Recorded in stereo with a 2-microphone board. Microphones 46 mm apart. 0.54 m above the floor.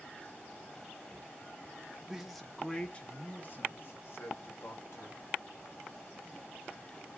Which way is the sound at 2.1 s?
10° right (ahead or behind).